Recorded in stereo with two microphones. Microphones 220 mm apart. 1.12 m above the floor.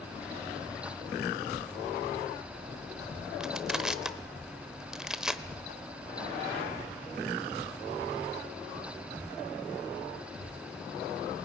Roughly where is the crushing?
Centre.